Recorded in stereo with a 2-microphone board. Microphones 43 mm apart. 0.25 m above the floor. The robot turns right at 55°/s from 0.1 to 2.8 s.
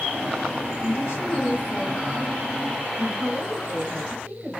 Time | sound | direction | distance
0.8 | a woman speaking | 90° left | 4 m